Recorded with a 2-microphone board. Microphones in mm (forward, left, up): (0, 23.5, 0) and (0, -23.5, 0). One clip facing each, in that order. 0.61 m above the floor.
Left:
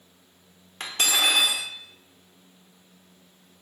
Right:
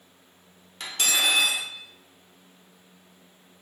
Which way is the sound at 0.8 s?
35° left (ahead or behind).